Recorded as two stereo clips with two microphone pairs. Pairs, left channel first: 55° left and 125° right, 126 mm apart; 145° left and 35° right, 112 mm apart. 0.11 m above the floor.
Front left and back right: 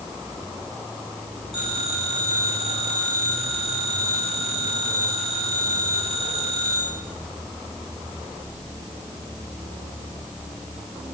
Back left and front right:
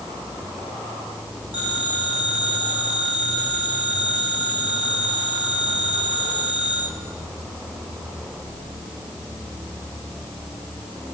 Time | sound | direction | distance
1.5 | a phone ringing | 165° right | 8.5 m